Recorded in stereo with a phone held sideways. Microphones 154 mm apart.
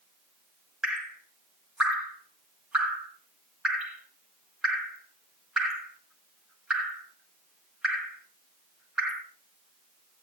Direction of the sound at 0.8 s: 5° right (ahead or behind).